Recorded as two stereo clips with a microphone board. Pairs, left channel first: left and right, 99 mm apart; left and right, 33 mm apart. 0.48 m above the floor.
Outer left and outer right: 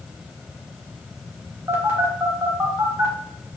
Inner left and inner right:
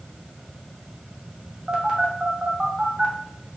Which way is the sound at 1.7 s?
25° right (ahead or behind).